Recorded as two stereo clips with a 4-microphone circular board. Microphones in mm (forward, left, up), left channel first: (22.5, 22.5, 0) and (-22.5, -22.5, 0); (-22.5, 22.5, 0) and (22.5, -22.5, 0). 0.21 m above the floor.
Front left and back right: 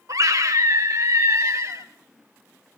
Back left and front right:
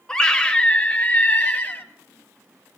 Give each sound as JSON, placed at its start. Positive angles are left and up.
{"t": 0.1, "sound": "a scream", "azimuth_deg": -150, "distance_m": 3.0}